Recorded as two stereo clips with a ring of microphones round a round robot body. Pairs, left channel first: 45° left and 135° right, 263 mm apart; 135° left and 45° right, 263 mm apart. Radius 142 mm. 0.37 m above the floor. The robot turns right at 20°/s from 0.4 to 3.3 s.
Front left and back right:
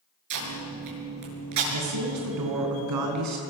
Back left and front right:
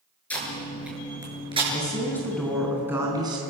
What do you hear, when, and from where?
0.3 s tape being pulled: 140° right, 6.5 m; by 1.6 s 115° right, 6.5 m
1.7 s a woman speaking: 150° right, 4.5 m; by 3.4 s 120° right, 4.5 m